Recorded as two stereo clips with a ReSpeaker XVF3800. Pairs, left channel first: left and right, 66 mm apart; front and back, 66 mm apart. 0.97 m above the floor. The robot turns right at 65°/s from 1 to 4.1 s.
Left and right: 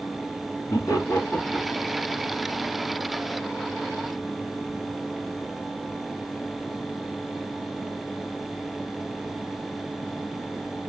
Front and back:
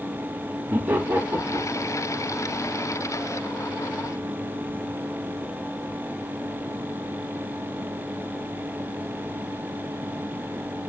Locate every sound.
0.7 s laughter: 125° left, 1.9 m; by 1.9 s straight behind, 1.9 m